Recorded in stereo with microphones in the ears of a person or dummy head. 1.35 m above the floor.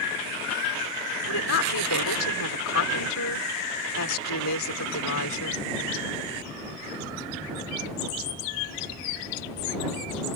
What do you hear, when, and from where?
1.3 s a woman speaking: 75° left (ahead or behind)